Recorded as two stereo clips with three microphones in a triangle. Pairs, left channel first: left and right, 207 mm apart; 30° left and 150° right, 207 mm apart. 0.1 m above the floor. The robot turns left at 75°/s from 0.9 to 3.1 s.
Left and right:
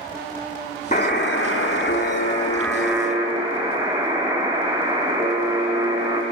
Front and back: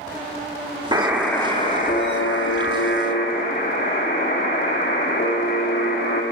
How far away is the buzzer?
About 0.9 m.